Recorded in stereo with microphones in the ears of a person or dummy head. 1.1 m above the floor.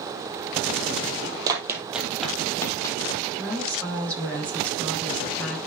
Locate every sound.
1.5 s running footsteps: 15° right (ahead or behind), 2 m; by 3.2 s 30° left (ahead or behind), 3 m
3.4 s a woman speaking: 5° left (ahead or behind), 6 m